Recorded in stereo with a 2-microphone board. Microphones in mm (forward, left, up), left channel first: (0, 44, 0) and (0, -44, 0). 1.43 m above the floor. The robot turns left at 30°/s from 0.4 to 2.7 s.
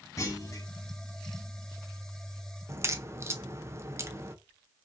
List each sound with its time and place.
0.2 s a clunk: 40° left (ahead or behind), 1.1 m
2.7 s a crack: 30° right (ahead or behind), 0.6 m